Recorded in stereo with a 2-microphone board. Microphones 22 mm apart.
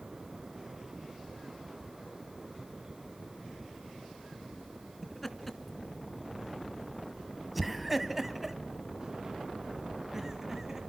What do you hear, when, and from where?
5.0 s laughter: 5° left (ahead or behind), 2.5 m; by 10.8 s 20° right (ahead or behind), 1.8 m